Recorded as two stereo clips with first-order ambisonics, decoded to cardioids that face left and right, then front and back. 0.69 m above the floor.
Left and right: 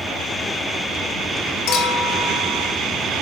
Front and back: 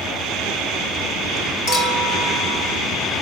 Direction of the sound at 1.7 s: 60° left.